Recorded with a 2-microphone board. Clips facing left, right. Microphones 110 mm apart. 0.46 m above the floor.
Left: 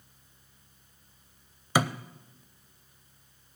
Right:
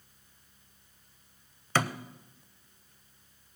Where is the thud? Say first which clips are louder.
Left 2 dB; 15° left (ahead or behind), 0.5 m.